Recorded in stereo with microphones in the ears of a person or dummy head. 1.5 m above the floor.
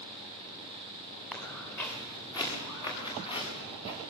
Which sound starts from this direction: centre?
Footsteps, at 1.3 s.